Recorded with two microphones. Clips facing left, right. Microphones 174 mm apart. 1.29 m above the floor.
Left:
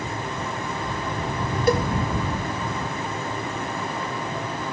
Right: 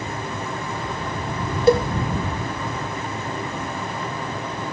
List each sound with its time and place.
1.7 s a cowbell: 25° right (ahead or behind)